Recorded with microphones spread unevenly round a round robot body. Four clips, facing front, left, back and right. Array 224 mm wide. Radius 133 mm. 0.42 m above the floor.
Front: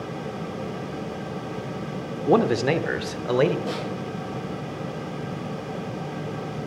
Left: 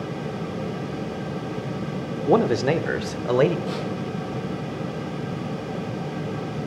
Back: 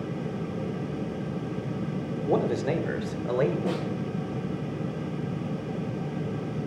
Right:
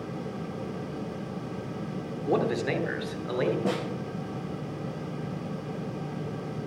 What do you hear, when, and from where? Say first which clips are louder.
2.3 s a man speaking: left 7 dB, front 6 dB; 45° left, 1.1 m; by 3.5 s 55° left, 1.5 m
3.6 s a snare drum: even, even; 110° right, 8 m